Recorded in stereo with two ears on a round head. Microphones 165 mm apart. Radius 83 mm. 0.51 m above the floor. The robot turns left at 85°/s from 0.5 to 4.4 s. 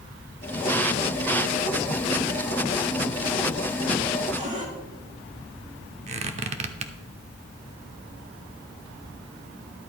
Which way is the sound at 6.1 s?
35° right (ahead or behind).